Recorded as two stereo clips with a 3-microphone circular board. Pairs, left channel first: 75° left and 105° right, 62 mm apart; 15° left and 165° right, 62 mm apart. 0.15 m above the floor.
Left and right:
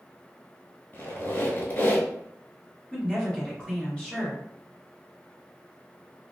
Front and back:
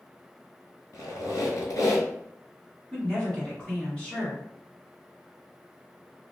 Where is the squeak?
30° left, 1.0 m.